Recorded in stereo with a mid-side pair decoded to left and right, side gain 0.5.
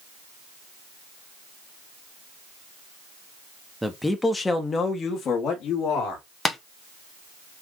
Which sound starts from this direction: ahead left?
Tapping, at 6.5 s.